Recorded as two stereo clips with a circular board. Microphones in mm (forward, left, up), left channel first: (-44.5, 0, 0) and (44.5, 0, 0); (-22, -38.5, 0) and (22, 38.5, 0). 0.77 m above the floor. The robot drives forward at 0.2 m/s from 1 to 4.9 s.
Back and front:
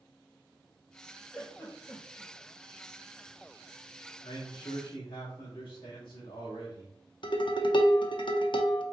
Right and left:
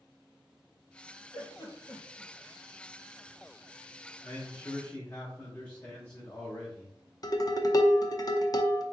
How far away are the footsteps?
No footsteps in this recording.